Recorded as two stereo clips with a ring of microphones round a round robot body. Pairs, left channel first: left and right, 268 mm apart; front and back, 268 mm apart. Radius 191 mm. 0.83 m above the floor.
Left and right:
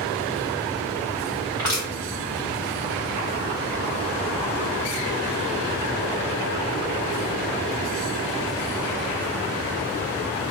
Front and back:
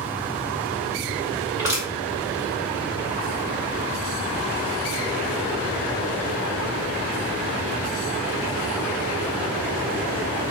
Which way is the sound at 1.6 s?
140° right.